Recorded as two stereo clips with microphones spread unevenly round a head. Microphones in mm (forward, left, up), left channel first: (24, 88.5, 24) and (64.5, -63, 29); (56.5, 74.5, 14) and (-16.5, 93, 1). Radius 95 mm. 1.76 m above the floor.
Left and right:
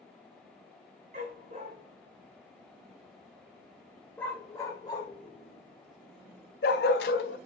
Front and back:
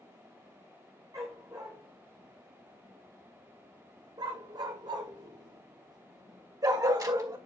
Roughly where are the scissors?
I don't hear scissors.